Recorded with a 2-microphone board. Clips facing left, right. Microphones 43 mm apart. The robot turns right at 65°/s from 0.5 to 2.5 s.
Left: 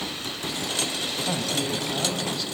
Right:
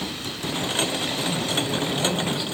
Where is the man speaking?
125° left, 4 m; by 2.5 s 160° right, 4 m.